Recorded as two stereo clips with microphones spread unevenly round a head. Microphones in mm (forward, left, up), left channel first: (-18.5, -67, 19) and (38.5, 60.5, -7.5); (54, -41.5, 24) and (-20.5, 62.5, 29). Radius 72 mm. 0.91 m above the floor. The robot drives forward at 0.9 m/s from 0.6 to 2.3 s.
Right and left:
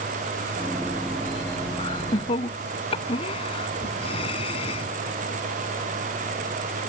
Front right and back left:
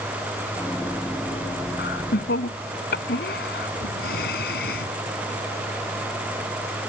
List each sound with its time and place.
1.8 s laughter: 60° right; by 4.9 s 65° right